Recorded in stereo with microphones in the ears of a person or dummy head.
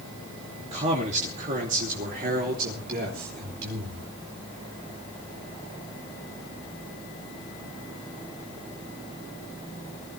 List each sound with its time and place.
0.6 s a man speaking: 40° right (ahead or behind), 2.5 m; by 4.1 s 60° right (ahead or behind), 4 m